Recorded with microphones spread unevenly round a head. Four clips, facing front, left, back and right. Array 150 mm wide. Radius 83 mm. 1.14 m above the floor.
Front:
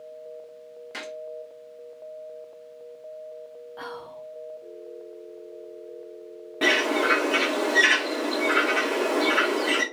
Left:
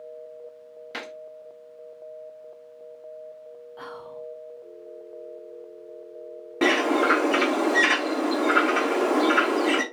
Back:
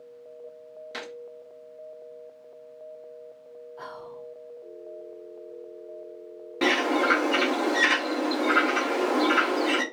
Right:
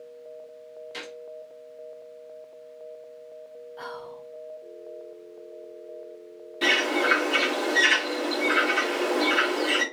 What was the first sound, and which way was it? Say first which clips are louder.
A gunshot: left 6 dB, front 1 dB; 80° left.